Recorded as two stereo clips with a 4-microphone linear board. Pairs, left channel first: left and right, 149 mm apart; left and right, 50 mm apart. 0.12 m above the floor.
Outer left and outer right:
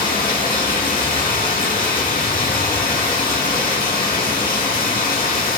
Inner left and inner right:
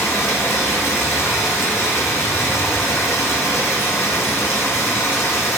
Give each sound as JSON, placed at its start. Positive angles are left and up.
{"t": 0.0, "sound": "running water", "side_deg": 80, "distance_m": 0.7}